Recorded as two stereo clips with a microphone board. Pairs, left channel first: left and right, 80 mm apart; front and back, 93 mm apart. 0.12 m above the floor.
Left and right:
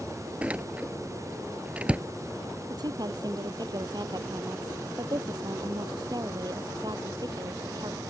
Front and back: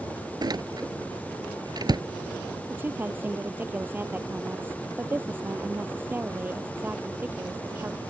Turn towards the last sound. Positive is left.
turn(degrees=-115)